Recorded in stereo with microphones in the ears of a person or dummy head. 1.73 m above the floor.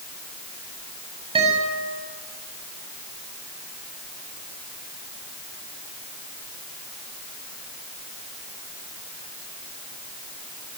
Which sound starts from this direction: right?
A guitar, at 1.4 s.